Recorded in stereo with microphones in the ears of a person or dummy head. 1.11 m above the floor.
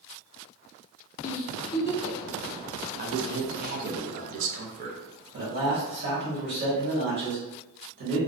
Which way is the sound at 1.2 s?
30° left (ahead or behind).